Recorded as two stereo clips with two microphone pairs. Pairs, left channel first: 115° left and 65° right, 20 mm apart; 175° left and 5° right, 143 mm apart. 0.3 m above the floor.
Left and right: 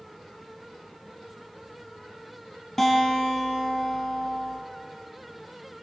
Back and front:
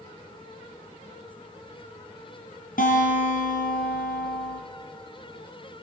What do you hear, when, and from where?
2.8 s a guitar: 165° right, 4.5 m